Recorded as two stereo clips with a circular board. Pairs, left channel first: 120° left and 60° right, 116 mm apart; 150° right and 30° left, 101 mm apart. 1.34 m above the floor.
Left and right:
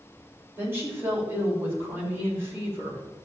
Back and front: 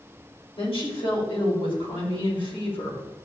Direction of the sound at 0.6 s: 130° right.